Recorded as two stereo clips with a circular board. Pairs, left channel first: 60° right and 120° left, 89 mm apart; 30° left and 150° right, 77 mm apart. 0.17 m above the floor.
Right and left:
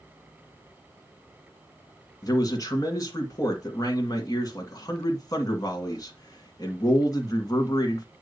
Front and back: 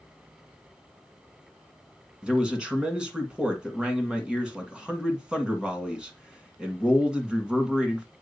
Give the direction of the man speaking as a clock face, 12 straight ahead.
2 o'clock.